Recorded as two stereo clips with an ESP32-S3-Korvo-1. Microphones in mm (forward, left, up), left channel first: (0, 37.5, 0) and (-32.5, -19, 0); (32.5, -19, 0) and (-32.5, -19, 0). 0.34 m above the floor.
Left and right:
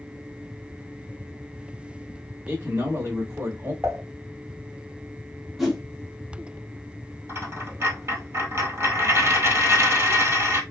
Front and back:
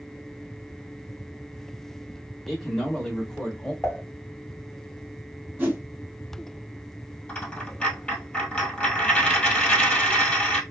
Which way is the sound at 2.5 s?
85° right.